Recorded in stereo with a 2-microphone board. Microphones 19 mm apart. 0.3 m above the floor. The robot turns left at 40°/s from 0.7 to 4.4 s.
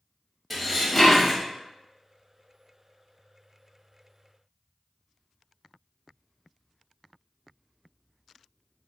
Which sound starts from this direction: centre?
Dishes clattering, at 0.5 s.